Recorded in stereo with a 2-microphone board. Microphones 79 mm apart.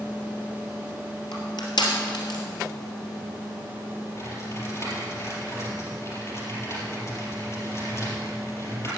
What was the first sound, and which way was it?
Crushing, 65° left (ahead or behind).